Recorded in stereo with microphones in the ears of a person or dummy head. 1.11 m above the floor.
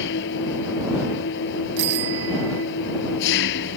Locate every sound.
0.0 s an engine running: 60° left (ahead or behind)
1.8 s a bicycle bell: 55° right (ahead or behind)